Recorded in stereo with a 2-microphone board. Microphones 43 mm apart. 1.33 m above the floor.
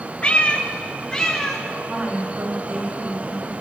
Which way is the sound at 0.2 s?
25° left (ahead or behind).